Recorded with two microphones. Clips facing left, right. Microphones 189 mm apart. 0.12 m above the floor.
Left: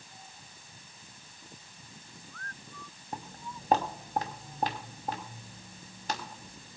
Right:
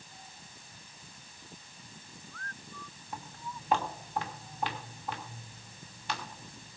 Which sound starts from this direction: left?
Footsteps, at 3.1 s.